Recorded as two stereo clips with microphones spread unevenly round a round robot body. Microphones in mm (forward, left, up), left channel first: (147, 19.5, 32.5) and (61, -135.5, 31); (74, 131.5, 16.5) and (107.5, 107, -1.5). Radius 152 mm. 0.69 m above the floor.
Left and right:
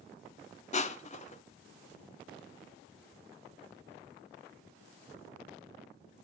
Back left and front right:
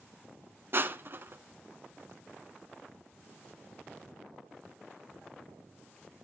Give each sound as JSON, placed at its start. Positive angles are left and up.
{"t": 0.7, "sound": "crushing", "azimuth_deg": 15, "distance_m": 1.2}